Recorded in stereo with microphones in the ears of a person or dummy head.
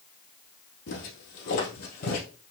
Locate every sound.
0.9 s footsteps: 50° left (ahead or behind), 2.5 m